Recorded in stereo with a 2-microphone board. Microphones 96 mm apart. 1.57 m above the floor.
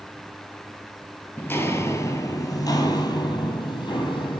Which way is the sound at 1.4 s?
20° left (ahead or behind).